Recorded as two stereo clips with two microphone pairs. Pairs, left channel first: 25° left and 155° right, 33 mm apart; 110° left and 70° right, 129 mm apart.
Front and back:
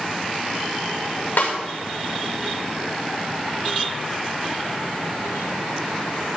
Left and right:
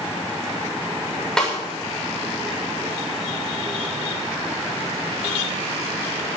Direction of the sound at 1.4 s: 25° left.